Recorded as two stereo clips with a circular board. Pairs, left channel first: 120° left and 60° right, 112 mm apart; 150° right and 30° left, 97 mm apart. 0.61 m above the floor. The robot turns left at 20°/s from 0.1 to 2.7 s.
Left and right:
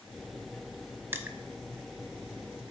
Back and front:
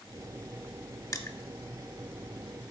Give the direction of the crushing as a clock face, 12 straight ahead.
4 o'clock.